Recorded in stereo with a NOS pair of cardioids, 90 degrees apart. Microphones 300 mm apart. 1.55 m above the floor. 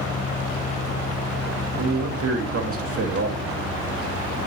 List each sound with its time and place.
0.0 s a fan: 25° left, 1.1 m
1.8 s a man speaking: 50° right, 2 m